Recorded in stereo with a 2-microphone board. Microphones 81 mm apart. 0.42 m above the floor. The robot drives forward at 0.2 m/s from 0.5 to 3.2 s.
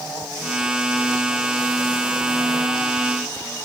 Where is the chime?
I don't hear a chime.